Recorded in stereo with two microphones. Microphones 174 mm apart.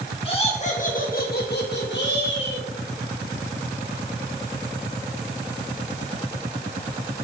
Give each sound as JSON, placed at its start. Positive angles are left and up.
{"t": 0.2, "sound": "laughter", "side_deg": 30, "distance_m": 2.5}